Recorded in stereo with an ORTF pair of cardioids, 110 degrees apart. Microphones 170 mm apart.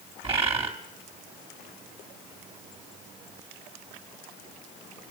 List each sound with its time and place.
0.2 s a bird: 35° right, 3.5 m